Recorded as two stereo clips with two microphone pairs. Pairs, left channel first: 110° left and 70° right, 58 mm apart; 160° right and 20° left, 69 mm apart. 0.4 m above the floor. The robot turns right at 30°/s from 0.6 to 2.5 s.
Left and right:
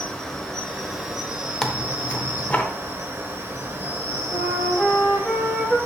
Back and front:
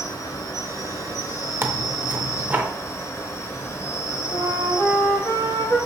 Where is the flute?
155° right, 2.5 m.